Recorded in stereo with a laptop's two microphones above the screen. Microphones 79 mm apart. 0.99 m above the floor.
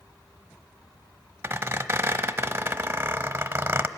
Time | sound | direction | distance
1.4 | a squeak | 25° right (ahead or behind) | 0.9 m